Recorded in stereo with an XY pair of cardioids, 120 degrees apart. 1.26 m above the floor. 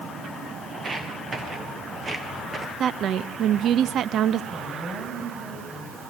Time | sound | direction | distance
0.7 | footsteps | 25° right | 4.5 m
2.8 | a woman speaking | 55° right | 1.2 m
4.5 | a woman speaking | 25° right | 9 m